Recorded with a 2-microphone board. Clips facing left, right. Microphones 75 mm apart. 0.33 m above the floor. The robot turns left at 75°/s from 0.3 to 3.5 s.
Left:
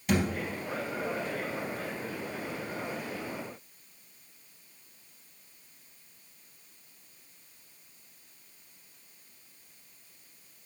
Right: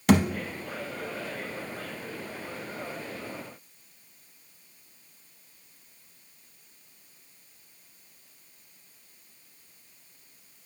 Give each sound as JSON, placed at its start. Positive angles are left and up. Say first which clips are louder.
{"t": 0.1, "sound": "a thud", "louder": "right 7 dB", "side_deg": -85, "distance_m": 0.5}